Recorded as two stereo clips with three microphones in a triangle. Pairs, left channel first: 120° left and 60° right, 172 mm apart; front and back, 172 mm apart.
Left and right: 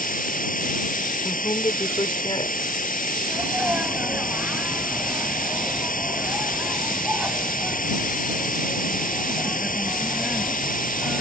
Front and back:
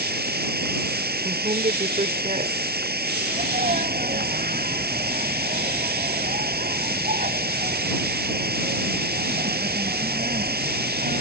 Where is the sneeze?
140° right.